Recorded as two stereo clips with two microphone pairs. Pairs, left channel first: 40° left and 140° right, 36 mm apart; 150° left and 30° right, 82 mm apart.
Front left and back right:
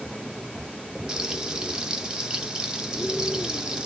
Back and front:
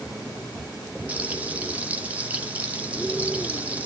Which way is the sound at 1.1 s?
95° right.